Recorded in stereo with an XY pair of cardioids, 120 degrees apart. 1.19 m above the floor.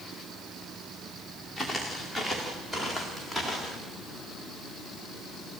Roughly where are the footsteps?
Ahead.